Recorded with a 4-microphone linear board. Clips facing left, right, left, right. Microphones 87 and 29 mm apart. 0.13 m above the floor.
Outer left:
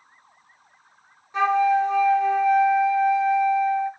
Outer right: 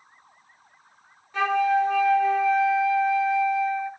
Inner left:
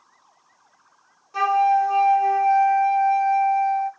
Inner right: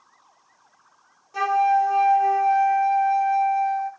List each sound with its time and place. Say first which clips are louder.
1.3 s a flute: outer left 2 dB, inner left 1 dB; 20° left (ahead or behind), 0.9 m